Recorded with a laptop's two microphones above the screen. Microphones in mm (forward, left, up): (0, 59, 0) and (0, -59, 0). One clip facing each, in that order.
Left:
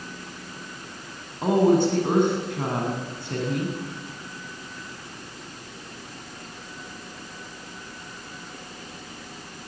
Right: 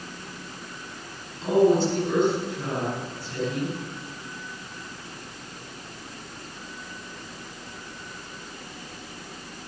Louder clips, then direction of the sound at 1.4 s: Left 1 dB; 60° left (ahead or behind).